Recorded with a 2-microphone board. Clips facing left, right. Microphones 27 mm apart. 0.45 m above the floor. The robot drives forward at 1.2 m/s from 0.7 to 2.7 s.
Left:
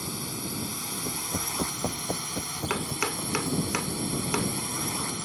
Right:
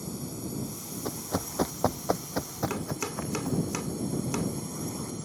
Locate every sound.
0.0 s a drone: 65° left (ahead or behind); by 5.3 s 75° left (ahead or behind)
1.1 s running footsteps: 65° right (ahead or behind); by 3.7 s 30° right (ahead or behind)
2.7 s chopping: 40° left (ahead or behind)